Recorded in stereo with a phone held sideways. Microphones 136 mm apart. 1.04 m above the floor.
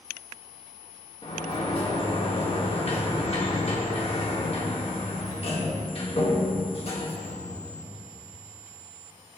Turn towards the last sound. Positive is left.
turn(degrees=45)  # may be behind; listen again after turning